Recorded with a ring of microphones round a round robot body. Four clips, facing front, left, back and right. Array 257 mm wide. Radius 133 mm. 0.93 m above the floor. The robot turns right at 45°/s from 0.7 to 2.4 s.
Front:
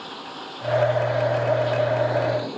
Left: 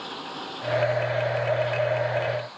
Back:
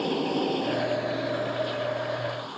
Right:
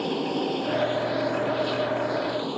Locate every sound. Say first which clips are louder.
0.0 s running water: right 10 dB, back 10 dB; 135° right; by 2.6 s 60° right